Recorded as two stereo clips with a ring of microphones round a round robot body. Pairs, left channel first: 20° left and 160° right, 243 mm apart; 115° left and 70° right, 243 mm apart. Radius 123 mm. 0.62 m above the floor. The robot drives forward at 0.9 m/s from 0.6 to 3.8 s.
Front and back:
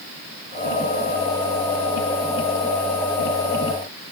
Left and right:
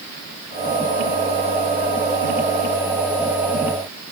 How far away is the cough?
I don't hear a cough.